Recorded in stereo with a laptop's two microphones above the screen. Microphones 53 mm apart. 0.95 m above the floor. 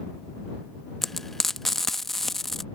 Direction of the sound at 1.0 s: 5° left (ahead or behind).